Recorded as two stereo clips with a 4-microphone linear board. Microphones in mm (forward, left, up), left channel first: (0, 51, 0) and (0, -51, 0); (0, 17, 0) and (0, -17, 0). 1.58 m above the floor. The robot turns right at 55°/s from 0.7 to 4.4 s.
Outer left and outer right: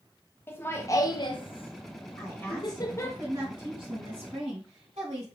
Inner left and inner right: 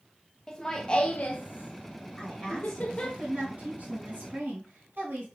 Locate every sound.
0.5 s laughter: 20° left (ahead or behind), 0.7 m
2.2 s a woman speaking: 145° left, 2.5 m; by 5.2 s 90° right, 2.5 m